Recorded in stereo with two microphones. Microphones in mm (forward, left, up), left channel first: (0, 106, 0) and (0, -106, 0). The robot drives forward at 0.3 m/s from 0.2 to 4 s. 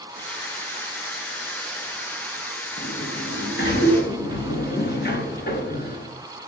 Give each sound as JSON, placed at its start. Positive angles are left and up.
{"t": 2.8, "sound": "a sliding door", "side_deg": 50, "distance_m": 1.8}